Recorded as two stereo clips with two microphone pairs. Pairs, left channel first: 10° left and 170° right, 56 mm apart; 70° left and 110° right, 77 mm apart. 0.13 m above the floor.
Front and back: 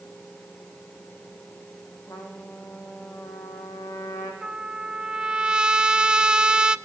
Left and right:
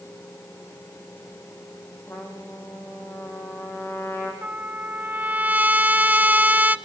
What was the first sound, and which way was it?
A trumpet, 15° left.